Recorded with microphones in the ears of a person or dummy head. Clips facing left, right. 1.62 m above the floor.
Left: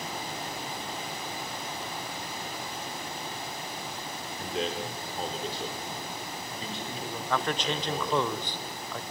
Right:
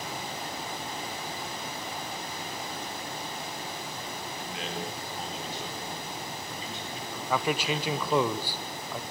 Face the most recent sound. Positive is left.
turn(degrees=-5)  # may be behind; listen again after turning